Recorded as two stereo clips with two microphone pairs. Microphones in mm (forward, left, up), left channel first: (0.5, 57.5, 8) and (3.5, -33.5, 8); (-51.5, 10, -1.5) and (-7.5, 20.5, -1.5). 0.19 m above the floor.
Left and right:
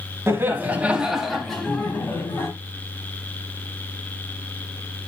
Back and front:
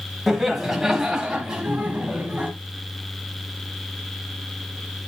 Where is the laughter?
70° right, 1.4 m; by 2.5 s 55° left, 1.5 m.